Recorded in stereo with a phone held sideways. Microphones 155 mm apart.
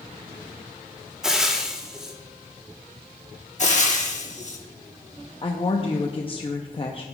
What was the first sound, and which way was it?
Frying, 5° right (ahead or behind).